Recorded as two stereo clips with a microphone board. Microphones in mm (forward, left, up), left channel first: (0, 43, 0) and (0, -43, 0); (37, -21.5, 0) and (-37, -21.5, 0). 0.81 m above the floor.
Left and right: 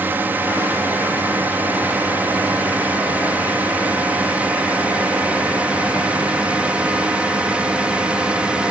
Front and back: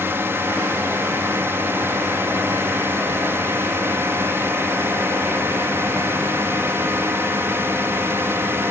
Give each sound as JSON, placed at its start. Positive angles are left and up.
{"t": 0.0, "sound": "a drone", "azimuth_deg": -145}